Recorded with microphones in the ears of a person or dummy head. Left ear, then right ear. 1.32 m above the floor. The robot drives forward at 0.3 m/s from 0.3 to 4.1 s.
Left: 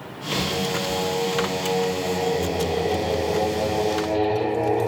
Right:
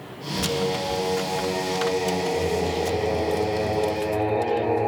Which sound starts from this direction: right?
Singing, at 0.3 s.